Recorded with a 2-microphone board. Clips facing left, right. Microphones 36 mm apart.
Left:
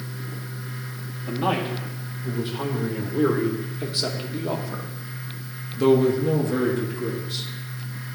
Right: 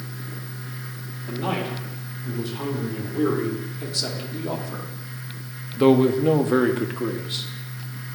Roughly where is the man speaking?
Left.